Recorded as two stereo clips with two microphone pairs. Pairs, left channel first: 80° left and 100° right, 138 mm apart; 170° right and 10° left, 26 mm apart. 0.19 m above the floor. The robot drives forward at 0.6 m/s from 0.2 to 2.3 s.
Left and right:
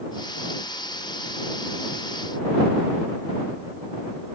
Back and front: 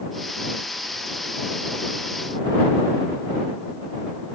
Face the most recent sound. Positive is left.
No sound to turn to.